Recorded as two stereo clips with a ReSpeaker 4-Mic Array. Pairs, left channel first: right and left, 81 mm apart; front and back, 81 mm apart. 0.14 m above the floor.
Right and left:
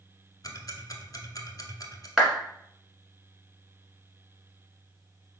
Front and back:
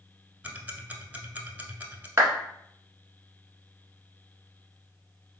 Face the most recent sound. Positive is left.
turn(degrees=165)